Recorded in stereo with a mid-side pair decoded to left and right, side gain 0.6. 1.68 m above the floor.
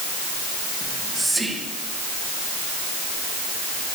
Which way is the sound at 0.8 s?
10° right.